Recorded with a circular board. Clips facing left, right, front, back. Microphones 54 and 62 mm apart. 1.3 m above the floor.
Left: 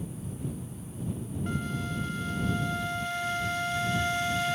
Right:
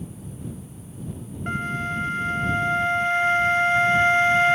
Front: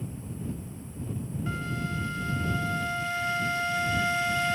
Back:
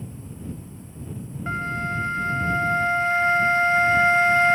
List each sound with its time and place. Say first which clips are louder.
1.5 s a flute: right 8 dB, back 8 dB; 135° right